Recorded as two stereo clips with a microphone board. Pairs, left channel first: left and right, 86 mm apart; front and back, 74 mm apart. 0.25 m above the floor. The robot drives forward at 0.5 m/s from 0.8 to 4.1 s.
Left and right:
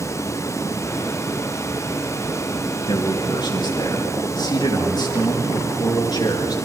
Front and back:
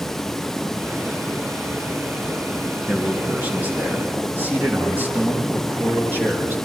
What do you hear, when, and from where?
2.9 s a man speaking: 115° left, 4.5 m; by 6.6 s 120° left, 5 m